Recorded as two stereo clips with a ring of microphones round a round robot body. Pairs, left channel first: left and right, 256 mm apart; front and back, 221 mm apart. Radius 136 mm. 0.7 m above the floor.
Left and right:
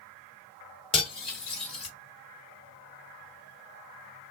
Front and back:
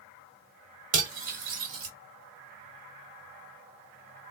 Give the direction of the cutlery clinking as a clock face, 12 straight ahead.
7 o'clock.